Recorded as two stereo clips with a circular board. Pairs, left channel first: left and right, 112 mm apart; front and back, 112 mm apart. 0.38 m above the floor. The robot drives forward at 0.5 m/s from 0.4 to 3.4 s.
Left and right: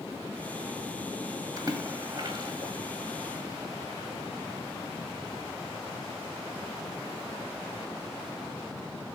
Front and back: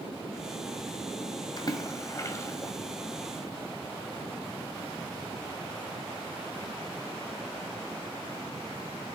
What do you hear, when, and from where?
1.6 s a splash: 40° right, 1.8 m; by 2.7 s 60° right, 1.5 m